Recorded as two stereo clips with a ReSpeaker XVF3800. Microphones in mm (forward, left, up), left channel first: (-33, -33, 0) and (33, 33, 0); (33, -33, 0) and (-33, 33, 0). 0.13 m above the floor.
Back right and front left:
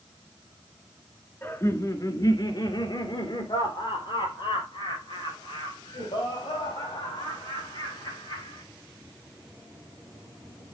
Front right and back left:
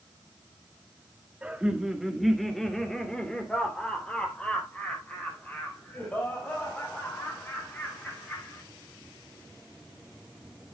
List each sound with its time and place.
1.4 s laughter: 165° right, 1.7 m; by 8.6 s 115° right, 8 m